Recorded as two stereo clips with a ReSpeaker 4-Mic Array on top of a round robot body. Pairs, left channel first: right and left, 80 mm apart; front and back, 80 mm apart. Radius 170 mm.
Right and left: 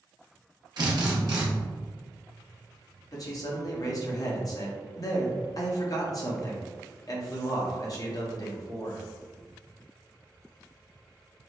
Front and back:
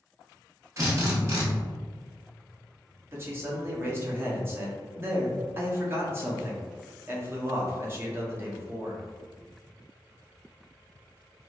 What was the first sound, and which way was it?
A drill, 125° left.